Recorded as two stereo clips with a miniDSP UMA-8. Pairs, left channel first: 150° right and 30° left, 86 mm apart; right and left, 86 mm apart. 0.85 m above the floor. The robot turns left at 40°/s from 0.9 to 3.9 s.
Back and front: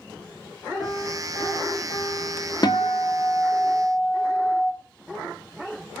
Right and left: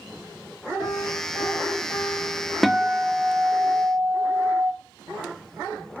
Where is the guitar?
175° right, 0.5 m; by 4.7 s 130° left, 0.5 m.